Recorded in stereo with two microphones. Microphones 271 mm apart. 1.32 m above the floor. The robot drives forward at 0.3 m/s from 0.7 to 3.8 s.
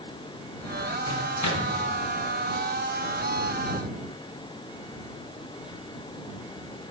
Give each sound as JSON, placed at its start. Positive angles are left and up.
{"t": 1.1, "sound": "a microwave", "side_deg": 85, "distance_m": 0.8}